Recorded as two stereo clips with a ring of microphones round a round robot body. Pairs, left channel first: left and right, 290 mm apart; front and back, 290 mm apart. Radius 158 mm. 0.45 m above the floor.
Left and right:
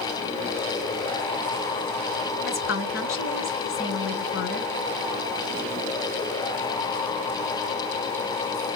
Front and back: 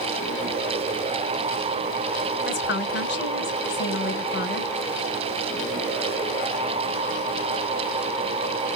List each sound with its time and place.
2.5 s a woman speaking: 45° left, 3 m